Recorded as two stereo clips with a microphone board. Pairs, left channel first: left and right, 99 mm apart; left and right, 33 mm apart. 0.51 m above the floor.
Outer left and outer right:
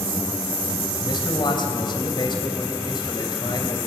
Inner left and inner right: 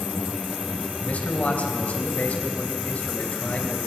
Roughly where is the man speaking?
Left.